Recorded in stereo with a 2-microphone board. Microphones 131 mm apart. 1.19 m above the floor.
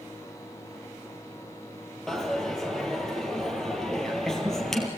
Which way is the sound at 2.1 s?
5° left (ahead or behind).